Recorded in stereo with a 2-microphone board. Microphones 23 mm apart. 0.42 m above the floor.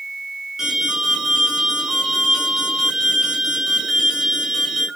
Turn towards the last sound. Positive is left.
turn(degrees=-20)  # may be behind; listen again after turning